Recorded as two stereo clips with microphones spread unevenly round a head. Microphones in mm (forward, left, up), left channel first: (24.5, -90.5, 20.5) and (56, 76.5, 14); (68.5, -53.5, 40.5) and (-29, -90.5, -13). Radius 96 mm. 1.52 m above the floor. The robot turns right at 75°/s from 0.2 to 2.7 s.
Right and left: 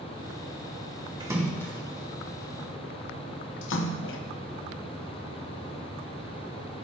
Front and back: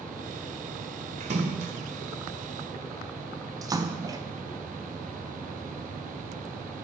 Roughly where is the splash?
Behind left.